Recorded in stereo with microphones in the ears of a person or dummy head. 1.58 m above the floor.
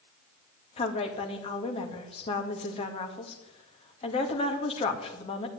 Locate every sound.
0.8 s a woman speaking: 35° left (ahead or behind), 2 m